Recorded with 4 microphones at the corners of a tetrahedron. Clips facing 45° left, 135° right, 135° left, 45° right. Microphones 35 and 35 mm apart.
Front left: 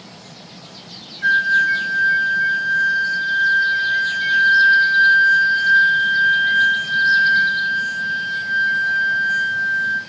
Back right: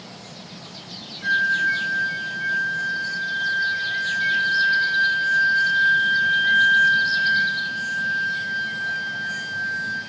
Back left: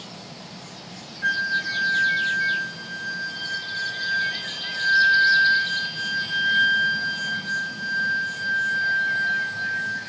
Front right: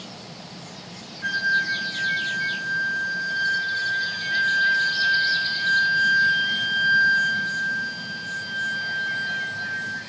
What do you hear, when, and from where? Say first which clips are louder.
1.2 s a flute: front left 5 dB, front right 1 dB; 70° left, 0.5 m